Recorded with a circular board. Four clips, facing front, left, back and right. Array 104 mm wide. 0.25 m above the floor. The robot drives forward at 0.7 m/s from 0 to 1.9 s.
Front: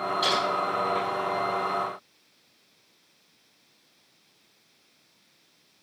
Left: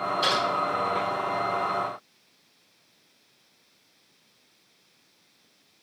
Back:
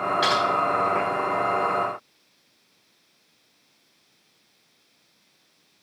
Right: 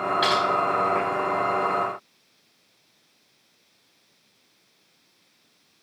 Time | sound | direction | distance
0.2 | typing on a keyboard | 135° right | 5 m